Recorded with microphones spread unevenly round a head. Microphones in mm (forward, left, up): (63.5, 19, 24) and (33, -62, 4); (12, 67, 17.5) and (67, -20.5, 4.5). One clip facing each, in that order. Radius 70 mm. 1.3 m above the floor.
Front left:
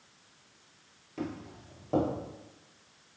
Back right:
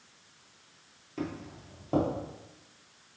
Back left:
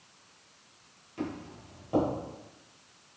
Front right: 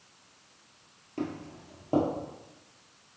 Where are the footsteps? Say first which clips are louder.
Back right 1 dB, front right 2 dB; 15° right, 1.8 m.